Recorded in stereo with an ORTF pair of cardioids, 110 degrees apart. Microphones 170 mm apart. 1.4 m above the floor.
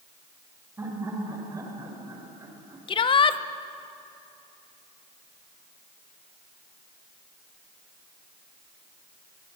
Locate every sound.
0.8 s laughter: 20° right, 7 m; by 2.8 s 25° right, 5.5 m
2.9 s a shout: 35° left, 1.2 m